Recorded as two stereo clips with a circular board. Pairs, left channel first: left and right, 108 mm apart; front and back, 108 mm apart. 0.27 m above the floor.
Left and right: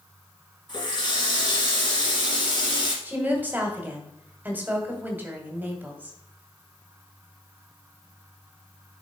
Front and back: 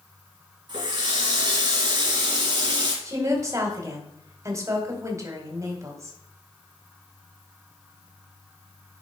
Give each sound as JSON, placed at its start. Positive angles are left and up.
{"t": 0.7, "sound": "a running tap", "azimuth_deg": 135, "distance_m": 2.5}
{"t": 3.0, "sound": "a woman speaking", "azimuth_deg": -150, "distance_m": 1.8}